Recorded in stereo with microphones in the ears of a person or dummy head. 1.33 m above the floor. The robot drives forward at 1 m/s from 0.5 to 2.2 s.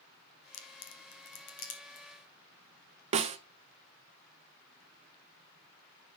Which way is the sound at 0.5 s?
75° left (ahead or behind).